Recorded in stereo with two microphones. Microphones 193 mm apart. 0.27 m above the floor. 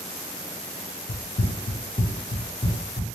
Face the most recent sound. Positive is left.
turn(degrees=20)  # may be behind; listen again after turning